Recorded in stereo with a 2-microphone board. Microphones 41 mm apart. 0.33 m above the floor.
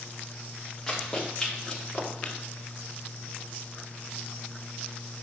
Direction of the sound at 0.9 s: 5° left (ahead or behind).